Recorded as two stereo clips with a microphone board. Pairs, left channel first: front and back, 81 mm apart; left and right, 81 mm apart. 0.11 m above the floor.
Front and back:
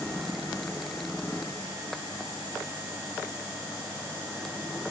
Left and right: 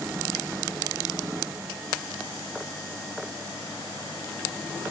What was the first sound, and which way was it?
Only background noise.